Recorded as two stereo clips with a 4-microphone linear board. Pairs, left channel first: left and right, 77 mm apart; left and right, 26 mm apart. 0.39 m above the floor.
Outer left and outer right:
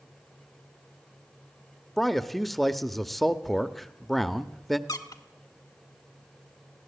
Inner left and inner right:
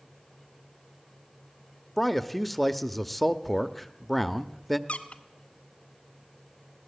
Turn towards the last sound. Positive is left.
turn(degrees=60)  # may be behind; listen again after turning